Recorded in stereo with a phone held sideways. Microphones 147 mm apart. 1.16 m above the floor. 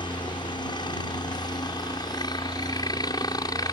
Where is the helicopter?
30° left (ahead or behind); by 3.7 s 25° left (ahead or behind).